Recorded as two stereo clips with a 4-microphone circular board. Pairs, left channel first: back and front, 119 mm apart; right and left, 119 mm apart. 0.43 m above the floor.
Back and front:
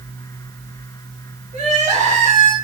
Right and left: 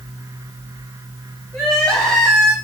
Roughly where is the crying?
Ahead.